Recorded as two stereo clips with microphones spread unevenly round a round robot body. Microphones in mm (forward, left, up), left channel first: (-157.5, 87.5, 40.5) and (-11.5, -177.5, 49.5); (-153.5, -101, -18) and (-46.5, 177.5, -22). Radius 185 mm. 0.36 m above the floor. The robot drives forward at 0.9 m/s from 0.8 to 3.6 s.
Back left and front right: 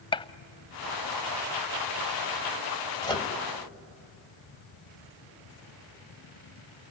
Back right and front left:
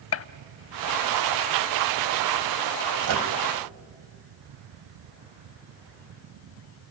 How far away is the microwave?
About 1.8 m.